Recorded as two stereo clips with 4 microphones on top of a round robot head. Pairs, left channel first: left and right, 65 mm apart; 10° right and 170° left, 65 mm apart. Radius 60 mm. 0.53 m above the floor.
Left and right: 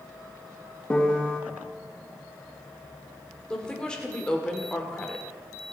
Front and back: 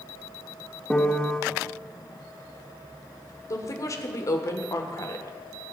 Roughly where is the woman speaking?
Ahead.